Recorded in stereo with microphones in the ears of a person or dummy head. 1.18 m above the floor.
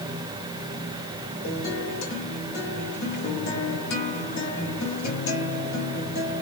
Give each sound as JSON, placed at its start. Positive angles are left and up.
{"t": 1.4, "sound": "a guitar", "side_deg": 60, "distance_m": 1.8}